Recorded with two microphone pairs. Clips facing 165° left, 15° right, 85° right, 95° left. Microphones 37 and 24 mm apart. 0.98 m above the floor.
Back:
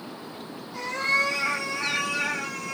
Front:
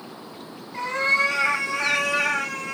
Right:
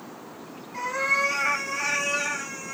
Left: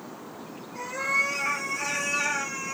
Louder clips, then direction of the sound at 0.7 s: Front 3 dB, right 2 dB; 60° right.